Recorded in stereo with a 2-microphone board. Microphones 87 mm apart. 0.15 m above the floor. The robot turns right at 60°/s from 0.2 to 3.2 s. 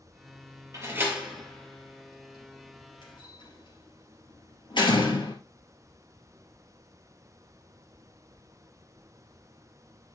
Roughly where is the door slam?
Right.